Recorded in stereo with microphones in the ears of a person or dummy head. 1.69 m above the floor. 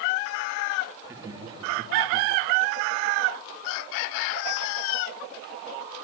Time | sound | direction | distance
1.0 | laughter | 15° right (ahead or behind) | 3.5 m